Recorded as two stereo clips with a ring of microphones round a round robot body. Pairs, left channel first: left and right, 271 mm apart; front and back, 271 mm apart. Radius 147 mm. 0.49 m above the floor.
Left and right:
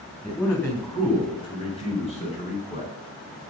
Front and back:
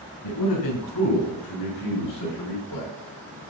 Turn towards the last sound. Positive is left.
turn(degrees=30)